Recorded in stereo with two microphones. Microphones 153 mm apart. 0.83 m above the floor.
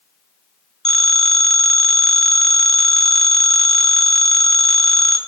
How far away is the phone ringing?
About 1.2 m.